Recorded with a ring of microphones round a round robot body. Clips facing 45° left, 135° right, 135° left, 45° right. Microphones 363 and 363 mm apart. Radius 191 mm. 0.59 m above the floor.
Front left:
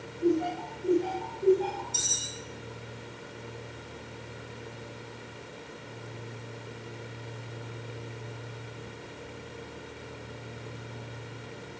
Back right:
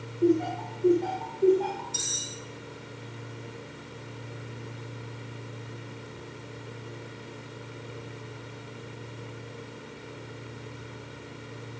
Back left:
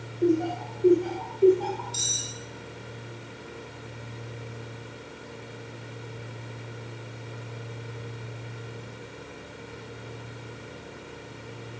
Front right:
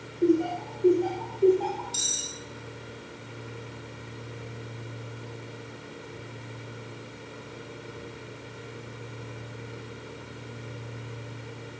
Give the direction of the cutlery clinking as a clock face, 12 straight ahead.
2 o'clock.